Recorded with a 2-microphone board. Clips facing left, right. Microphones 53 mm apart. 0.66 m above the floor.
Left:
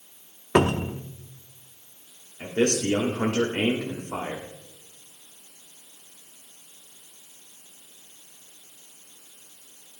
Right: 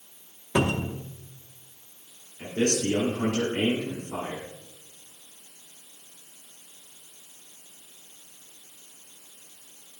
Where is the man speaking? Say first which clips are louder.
Left 2 dB; 60° left (ahead or behind), 1.5 m.